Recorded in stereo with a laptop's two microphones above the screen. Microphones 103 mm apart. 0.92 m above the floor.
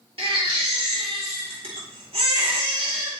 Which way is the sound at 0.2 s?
60° right (ahead or behind).